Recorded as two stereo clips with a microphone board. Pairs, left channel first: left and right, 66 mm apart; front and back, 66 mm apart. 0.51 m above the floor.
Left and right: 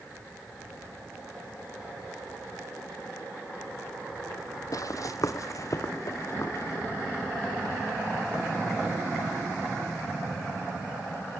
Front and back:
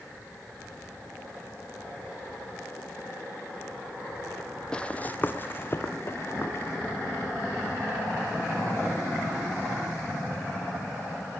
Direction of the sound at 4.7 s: 75° left.